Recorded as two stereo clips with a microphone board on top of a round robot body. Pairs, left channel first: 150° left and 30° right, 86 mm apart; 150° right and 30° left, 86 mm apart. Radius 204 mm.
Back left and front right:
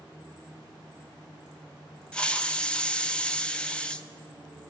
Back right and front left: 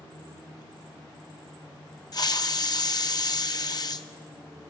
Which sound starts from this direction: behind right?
A hiss, at 2.1 s.